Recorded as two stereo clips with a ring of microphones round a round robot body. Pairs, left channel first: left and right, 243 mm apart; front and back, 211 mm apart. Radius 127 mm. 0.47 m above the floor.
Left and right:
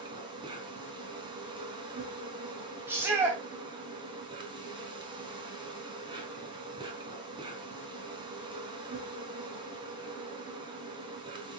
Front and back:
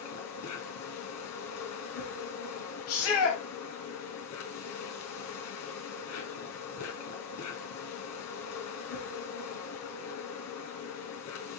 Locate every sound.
0.0 s an insect: 15° right, 4 m
2.9 s a shout: 10° right, 4 m